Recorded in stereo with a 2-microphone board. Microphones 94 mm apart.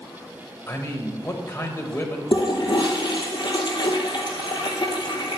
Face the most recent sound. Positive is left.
turn(degrees=55)  # may be behind; listen again after turning